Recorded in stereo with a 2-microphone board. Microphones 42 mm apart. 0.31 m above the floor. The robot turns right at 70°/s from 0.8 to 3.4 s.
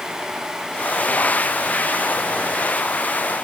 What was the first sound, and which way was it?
Only background noise.